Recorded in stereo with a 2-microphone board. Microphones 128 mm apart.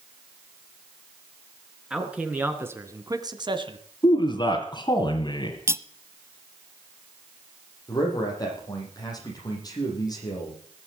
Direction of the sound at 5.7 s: 20° right (ahead or behind).